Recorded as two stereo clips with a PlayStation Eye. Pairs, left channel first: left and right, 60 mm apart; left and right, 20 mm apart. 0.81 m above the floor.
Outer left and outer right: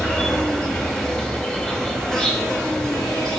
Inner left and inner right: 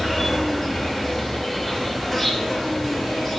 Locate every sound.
0.0 s an insect: 15° left (ahead or behind), 2 m